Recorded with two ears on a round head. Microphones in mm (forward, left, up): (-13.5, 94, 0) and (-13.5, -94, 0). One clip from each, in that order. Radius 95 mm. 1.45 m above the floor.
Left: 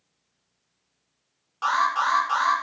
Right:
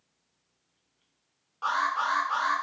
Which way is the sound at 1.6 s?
50° left (ahead or behind).